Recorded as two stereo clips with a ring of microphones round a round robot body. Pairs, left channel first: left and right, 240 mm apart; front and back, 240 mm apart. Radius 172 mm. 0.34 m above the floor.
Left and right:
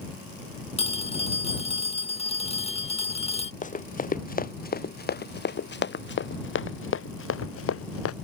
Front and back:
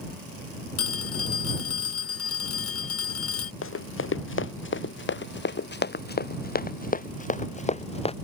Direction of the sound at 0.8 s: 25° left.